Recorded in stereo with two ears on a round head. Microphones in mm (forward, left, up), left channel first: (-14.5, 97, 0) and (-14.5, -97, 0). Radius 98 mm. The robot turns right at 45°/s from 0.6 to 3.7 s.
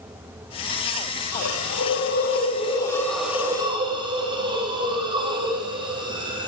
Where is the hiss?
95° left, 7.5 m; by 6.5 s 155° right, 7.5 m.